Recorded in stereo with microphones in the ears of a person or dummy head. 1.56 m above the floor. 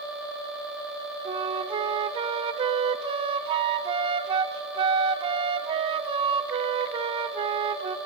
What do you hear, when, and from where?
1.2 s a flute: 30° right (ahead or behind), 0.7 m